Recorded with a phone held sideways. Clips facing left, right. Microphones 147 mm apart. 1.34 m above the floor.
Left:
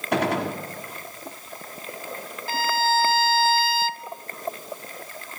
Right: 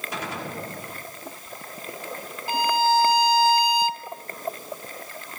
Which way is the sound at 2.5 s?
15° right (ahead or behind).